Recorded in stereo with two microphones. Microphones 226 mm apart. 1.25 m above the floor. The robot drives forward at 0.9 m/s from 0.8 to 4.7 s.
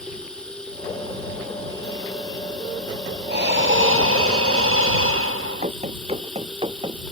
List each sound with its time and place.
0.0 s running water: 5° left (ahead or behind)
3.3 s breathing: 50° right (ahead or behind); by 5.7 s 70° right (ahead or behind)
5.6 s running footsteps: 30° right (ahead or behind); by 7.0 s 20° right (ahead or behind)